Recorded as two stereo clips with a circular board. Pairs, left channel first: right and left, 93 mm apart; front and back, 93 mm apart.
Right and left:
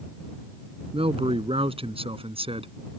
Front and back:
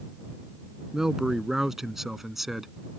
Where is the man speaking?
95° left; by 2.7 s 90° left.